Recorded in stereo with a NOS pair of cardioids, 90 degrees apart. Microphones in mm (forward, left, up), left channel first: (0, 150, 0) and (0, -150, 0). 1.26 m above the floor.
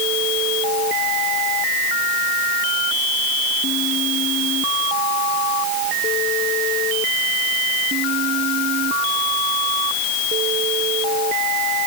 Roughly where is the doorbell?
I don't hear a doorbell.